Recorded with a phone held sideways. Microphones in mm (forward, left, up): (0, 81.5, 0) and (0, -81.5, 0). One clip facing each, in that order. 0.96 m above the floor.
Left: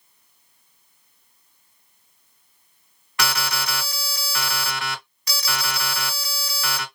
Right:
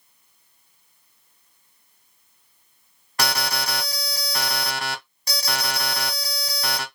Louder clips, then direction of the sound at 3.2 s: Right 1 dB; 40° right (ahead or behind).